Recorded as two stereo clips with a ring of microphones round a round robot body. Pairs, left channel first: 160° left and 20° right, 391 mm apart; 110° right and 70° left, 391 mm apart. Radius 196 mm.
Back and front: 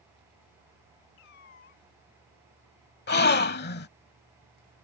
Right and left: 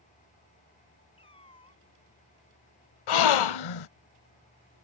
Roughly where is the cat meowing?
Behind.